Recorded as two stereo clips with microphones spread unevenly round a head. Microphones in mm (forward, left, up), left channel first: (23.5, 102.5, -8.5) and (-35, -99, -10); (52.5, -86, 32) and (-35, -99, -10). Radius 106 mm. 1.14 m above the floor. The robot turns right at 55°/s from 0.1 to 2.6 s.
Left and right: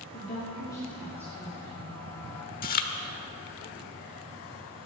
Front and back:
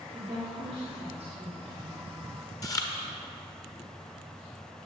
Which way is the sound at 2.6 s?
30° left.